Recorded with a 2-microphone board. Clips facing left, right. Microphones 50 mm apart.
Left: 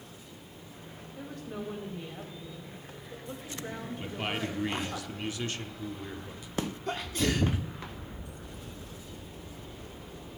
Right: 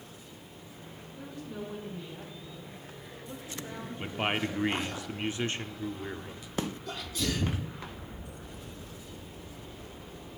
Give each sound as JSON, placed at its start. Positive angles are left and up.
{"t": 1.2, "sound": "a woman speaking", "side_deg": 65, "distance_m": 3.0}
{"t": 4.0, "sound": "a man speaking", "side_deg": -30, "distance_m": 0.8}
{"t": 6.9, "sound": "a sneeze", "side_deg": 40, "distance_m": 0.8}